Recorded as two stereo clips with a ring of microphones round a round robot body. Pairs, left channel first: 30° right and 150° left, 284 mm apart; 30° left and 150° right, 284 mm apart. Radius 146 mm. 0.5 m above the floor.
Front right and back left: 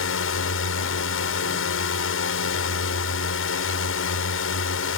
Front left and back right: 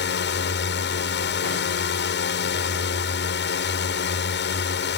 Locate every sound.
0.0 s a drone: 5° right